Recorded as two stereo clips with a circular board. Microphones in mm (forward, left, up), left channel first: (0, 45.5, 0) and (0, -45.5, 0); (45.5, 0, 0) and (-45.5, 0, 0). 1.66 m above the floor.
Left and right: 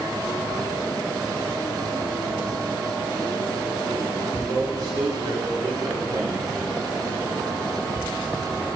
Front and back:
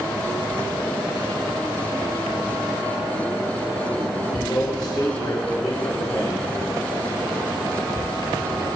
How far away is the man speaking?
About 4 m.